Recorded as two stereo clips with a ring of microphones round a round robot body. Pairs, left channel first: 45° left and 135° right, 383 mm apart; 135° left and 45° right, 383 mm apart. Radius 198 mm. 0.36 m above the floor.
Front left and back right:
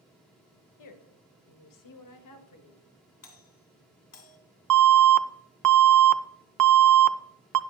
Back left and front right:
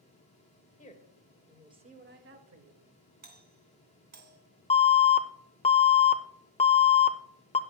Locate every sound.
0.8 s a woman speaking: 70° left, 1.5 m; by 2.9 s 5° right, 2.0 m
3.2 s a doorbell: 10° left, 2.5 m
4.7 s an alarm: 155° right, 0.7 m